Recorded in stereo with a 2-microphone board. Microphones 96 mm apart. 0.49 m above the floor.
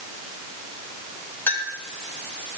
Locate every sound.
1.5 s a clink: 20° left (ahead or behind), 2.5 m